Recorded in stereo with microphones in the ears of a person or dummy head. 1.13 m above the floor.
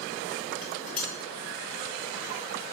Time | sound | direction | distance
0.6 | dishes clattering | 5° left (ahead or behind) | 3.5 m